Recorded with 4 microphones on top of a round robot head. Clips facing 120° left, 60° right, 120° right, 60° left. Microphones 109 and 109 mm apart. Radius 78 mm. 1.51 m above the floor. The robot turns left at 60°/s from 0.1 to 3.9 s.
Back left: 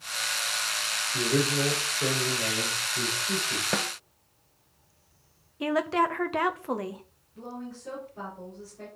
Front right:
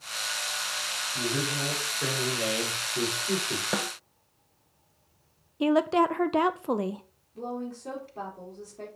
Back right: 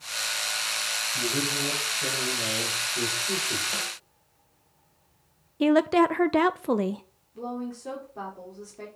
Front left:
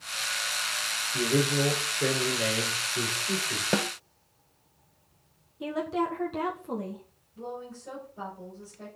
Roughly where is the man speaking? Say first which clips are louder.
Back left 5 dB, front left 5 dB; left.